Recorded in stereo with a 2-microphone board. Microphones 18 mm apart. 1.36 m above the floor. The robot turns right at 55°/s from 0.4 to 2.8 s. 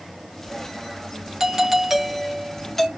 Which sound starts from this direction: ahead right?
A doorbell, at 1.4 s.